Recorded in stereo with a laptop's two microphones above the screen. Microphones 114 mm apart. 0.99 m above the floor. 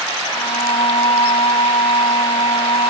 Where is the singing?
55° left (ahead or behind).